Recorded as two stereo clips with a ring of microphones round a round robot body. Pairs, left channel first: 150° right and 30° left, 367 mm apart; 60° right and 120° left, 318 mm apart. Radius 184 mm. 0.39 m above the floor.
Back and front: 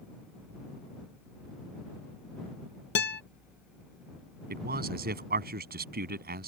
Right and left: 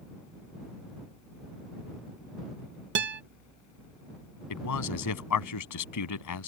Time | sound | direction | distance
3.0 | a guitar | 160° left | ?
4.5 | a man speaking | 35° right | ?